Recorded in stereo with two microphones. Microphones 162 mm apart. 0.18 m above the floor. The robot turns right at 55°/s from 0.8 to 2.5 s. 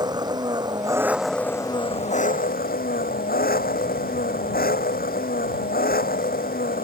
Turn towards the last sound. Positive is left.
turn(degrees=70)